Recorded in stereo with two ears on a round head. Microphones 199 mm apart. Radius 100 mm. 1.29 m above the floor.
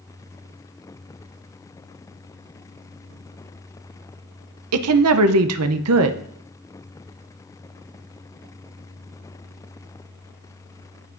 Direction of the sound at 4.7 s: 75° right (ahead or behind).